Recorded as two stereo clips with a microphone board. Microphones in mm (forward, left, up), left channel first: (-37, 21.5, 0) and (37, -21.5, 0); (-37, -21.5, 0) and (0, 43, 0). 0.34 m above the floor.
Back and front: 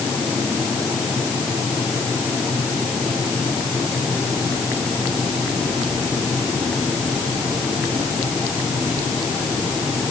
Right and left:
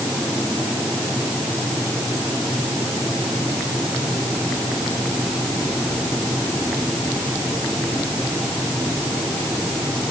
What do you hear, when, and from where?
Only background noise.